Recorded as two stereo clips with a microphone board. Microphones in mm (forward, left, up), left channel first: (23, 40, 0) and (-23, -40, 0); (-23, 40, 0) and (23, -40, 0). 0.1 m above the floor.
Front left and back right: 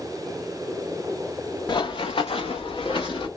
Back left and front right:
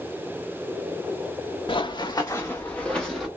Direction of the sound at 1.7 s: 95° left.